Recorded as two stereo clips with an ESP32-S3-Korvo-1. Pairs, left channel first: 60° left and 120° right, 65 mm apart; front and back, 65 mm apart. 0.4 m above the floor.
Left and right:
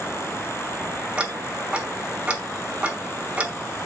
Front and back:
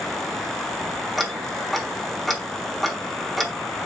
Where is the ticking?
90° right, 1.2 m.